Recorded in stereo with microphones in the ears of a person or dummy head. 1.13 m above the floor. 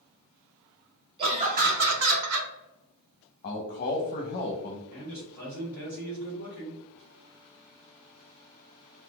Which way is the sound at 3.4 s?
30° left (ahead or behind).